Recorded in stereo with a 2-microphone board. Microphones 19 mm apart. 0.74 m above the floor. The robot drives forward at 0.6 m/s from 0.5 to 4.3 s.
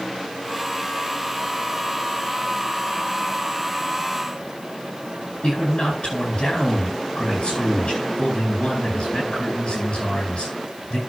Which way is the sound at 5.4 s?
60° left (ahead or behind).